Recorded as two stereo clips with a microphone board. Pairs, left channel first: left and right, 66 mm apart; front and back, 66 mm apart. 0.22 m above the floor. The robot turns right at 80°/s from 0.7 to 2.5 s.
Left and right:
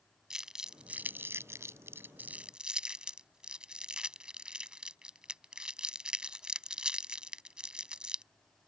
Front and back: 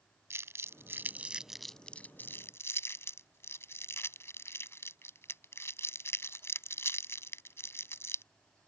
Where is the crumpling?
165° right; by 8.2 s 20° right.